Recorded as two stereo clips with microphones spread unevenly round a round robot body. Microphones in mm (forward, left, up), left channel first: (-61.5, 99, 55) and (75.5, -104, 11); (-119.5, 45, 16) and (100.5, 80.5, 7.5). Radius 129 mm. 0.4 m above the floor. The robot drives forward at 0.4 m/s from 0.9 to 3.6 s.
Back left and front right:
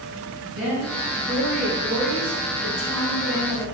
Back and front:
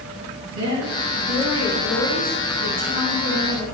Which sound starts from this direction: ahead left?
A woman speaking, at 0.5 s.